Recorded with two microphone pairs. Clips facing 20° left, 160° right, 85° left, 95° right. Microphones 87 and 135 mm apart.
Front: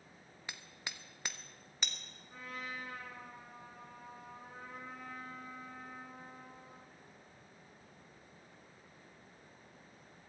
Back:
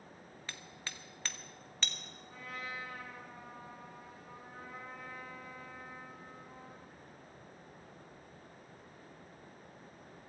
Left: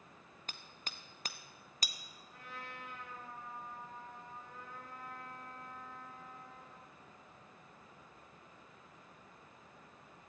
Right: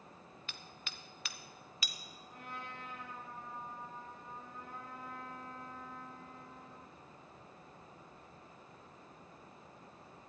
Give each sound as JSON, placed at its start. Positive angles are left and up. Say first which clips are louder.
{"t": 0.5, "sound": "hammering", "louder": "front 1 dB, left 2 dB", "azimuth_deg": 95, "distance_m": 0.8}
{"t": 2.3, "sound": "a trumpet", "louder": "back 1 dB, right 2 dB", "azimuth_deg": -60, "distance_m": 8.0}